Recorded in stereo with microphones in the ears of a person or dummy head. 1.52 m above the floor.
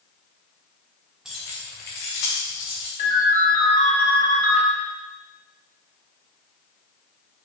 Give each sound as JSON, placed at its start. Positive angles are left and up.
{"t": 1.2, "sound": "keys jangling", "side_deg": -5, "distance_m": 0.6}
{"t": 3.0, "sound": "a ringtone", "side_deg": 45, "distance_m": 1.6}